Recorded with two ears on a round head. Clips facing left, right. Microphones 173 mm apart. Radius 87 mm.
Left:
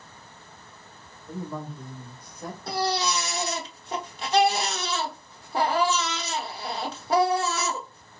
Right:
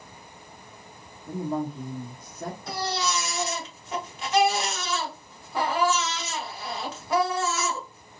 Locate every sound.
1.3 s a woman speaking: 40° right (ahead or behind), 1.2 m
2.7 s a baby crying: 30° left (ahead or behind), 0.8 m